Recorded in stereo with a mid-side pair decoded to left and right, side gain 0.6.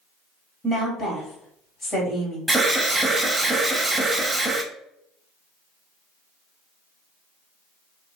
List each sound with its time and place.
0.6 s a woman speaking: 40° left, 1.8 m
2.5 s an alarm: 10° right, 0.6 m